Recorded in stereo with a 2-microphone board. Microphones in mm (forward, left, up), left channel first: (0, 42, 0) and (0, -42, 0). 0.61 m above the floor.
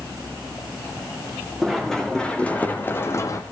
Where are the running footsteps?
Centre (ahead or behind), 3.5 m; by 3.4 s 40° left (ahead or behind), 2 m.